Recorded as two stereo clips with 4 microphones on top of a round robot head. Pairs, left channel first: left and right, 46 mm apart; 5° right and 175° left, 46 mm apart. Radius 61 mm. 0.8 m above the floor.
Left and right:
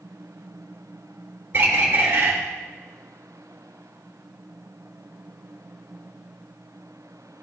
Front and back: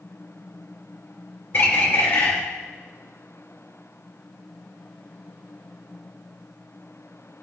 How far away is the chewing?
I don't hear chewing.